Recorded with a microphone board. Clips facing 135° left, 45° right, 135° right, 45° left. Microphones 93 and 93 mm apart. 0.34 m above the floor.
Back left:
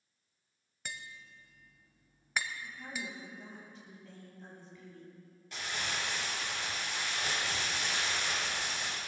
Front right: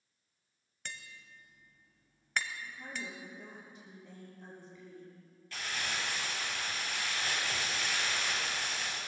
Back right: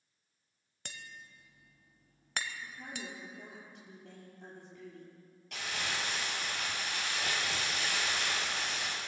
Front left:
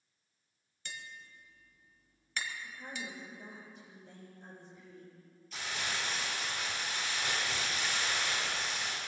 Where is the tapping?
145° right, 0.8 m.